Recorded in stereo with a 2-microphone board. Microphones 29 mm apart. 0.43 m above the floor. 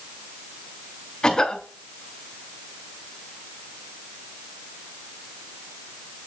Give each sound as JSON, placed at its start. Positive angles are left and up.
{"t": 1.2, "sound": "a cough", "side_deg": 20, "distance_m": 2.5}